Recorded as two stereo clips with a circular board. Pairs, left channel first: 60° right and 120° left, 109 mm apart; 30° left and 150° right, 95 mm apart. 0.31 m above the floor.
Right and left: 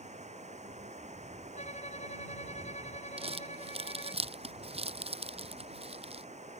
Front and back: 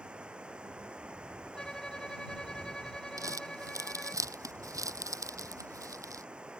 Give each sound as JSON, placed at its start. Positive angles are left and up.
{"t": 0.0, "sound": "running water", "azimuth_deg": 130}
{"t": 1.5, "sound": "a violin", "azimuth_deg": -55}
{"t": 3.2, "sound": "crumpling", "azimuth_deg": 150}